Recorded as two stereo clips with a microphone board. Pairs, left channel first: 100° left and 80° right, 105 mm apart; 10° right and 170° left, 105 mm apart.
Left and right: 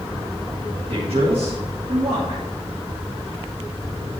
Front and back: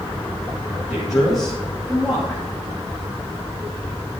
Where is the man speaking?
105° right, 3 m.